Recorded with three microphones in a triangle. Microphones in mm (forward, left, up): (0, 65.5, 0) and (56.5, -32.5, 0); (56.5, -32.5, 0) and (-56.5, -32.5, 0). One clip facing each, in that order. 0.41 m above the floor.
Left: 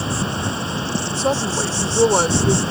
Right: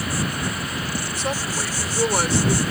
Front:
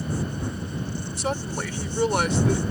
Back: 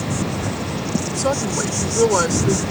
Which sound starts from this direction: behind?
An insect, at 0.0 s.